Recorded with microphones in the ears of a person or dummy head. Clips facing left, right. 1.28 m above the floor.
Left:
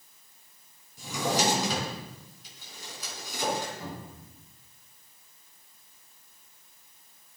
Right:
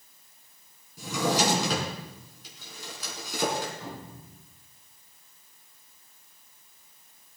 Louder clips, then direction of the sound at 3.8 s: Even; 15° left (ahead or behind).